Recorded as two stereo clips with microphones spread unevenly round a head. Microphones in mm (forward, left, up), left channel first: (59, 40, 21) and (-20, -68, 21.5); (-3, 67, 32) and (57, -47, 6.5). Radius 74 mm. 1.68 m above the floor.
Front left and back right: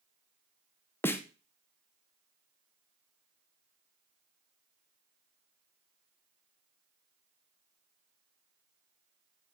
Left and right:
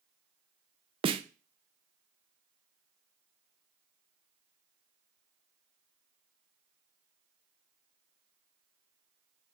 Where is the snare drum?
15° right, 0.7 m.